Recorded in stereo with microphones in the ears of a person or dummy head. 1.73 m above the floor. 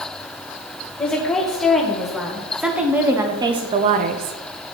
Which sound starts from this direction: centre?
A woman speaking, at 1.0 s.